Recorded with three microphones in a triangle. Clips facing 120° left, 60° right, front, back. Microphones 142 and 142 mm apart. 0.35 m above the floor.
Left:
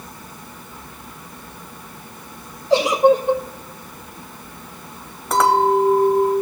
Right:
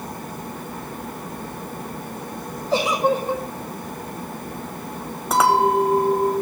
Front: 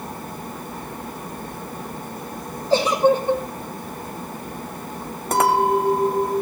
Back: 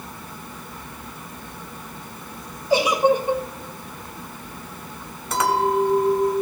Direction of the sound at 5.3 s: 25° left.